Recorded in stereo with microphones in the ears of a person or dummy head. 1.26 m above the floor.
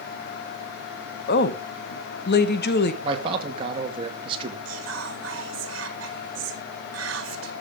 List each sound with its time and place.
1.3 s a woman speaking: 50° left (ahead or behind), 1.0 m
3.0 s a man speaking: 25° right (ahead or behind), 2.5 m
4.7 s whispering: 80° right, 1.5 m